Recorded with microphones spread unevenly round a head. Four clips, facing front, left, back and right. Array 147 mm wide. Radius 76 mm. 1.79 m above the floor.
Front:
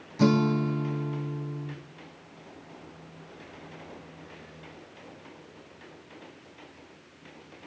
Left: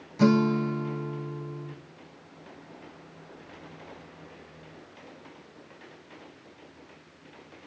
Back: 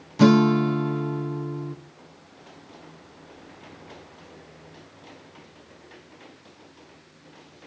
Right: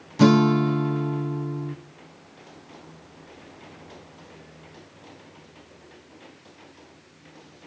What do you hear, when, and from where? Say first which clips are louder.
0.2 s a guitar: right 5 dB, back 6 dB; 135° right, 0.8 m